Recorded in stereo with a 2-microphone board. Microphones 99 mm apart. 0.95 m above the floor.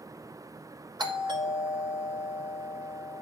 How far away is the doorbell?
About 2.5 m.